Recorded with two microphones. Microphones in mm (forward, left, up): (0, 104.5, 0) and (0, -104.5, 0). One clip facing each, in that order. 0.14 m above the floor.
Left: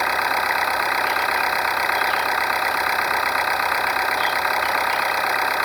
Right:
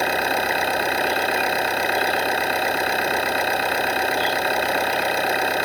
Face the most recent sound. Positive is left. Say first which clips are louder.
# right 3 dB
turn(degrees=-30)  # may be behind; listen again after turning